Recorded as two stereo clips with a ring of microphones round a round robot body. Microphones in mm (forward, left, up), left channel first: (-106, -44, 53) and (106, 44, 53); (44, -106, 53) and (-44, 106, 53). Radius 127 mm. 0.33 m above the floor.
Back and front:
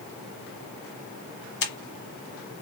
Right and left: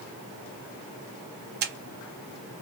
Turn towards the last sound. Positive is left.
turn(degrees=160)